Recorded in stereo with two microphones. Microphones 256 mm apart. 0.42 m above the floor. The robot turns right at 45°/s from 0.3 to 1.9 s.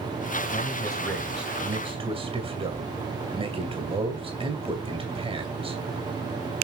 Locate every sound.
0.5 s a man speaking: 145° left, 2.5 m; by 5.8 s 155° right, 2.5 m